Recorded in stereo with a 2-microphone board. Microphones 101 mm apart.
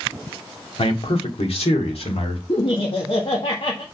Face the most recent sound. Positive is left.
turn(degrees=60)  # may be behind; listen again after turning